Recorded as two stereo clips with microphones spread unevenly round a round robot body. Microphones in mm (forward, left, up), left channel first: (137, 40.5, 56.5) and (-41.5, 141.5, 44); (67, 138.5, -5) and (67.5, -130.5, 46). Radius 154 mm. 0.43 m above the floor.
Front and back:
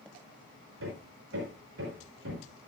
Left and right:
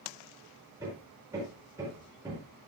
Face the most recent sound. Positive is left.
turn(degrees=-175)